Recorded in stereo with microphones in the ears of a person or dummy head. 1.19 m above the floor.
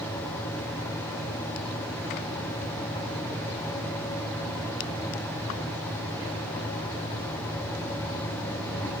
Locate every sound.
Only background noise.